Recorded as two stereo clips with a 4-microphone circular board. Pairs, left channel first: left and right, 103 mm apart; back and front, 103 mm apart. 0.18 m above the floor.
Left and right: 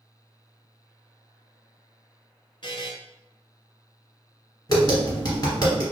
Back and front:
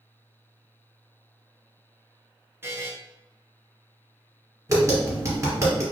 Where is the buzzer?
60° left, 0.8 m.